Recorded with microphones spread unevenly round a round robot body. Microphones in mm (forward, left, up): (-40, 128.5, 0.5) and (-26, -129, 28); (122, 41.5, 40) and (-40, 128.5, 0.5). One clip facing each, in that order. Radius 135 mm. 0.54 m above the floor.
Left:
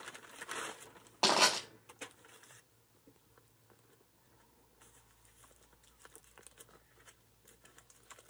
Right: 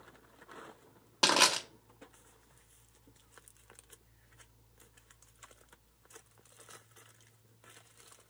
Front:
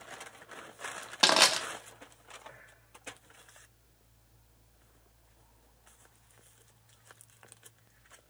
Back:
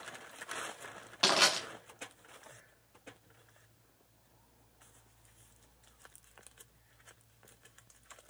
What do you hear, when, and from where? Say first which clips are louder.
1.2 s crushing: right 1 dB, front 3 dB; 25° right, 1.1 m